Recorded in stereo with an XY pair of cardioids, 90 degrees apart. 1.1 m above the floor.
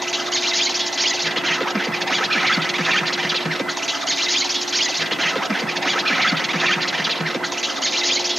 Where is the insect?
10° right, 0.8 m.